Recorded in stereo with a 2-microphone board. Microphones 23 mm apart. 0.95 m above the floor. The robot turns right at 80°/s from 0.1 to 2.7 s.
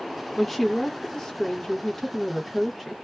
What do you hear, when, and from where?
0.4 s a woman speaking: 10° right (ahead or behind), 0.8 m; by 2.9 s 5° left (ahead or behind), 0.8 m